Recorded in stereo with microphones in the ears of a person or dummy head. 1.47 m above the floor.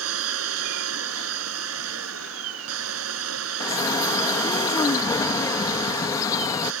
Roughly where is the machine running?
Right.